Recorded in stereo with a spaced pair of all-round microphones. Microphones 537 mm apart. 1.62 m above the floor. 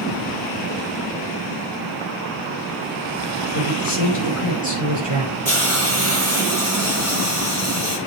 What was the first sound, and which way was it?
A man speaking, 70° left (ahead or behind).